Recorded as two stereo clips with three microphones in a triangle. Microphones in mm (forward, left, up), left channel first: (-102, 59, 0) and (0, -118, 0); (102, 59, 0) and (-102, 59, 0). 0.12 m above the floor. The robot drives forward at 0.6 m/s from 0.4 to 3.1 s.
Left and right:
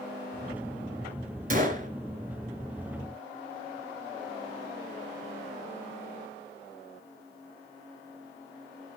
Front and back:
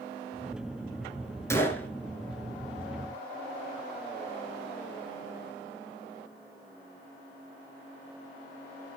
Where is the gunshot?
70° right, 2 m; by 1.9 s 80° right, 2 m.